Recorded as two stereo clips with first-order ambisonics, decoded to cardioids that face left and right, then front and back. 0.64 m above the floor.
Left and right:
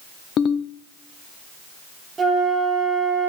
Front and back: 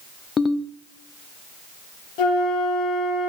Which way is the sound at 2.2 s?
15° right.